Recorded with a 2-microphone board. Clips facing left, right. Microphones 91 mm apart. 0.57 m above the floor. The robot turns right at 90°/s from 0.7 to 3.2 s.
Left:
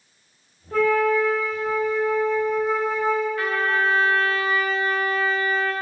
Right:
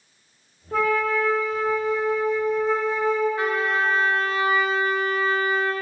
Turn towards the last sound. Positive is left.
turn(degrees=-20)  # may be behind; listen again after turning